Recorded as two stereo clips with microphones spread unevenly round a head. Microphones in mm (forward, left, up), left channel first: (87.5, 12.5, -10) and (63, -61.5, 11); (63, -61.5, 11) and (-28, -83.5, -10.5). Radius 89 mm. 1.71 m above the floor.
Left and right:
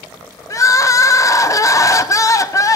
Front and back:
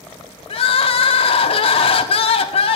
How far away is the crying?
About 0.5 m.